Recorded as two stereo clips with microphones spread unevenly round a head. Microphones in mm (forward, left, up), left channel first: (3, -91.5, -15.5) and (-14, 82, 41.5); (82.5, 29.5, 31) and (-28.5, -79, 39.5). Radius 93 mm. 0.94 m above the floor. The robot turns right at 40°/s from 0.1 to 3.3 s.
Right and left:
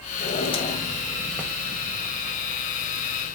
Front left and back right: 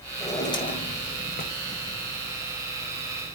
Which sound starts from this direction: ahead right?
A drawer, at 0.2 s.